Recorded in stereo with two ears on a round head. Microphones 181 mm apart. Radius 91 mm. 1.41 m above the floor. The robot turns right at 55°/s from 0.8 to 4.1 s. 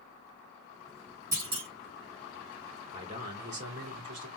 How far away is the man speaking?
About 2.5 m.